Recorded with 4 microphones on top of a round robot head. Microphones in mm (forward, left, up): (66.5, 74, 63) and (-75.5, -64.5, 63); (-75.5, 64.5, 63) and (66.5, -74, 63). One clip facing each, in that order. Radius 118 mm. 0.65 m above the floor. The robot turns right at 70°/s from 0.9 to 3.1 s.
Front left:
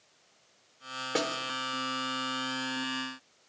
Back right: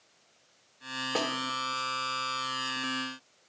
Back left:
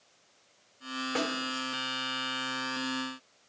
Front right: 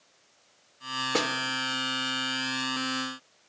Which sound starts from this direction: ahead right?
A snare drum, at 1.1 s.